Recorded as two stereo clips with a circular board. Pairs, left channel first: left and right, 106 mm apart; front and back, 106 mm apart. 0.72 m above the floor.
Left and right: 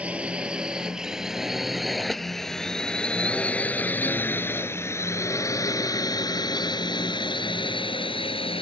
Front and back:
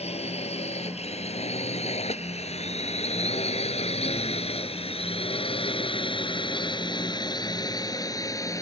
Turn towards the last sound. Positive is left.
turn(degrees=60)